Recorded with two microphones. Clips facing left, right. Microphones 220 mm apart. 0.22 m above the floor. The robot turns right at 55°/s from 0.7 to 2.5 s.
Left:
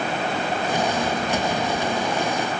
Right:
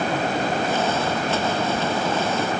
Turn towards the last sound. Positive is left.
No sound to turn to.